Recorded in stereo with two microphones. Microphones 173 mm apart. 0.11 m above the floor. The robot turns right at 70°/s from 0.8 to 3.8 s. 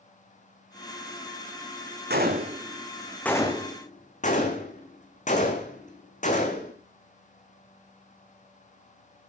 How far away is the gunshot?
About 2.5 m.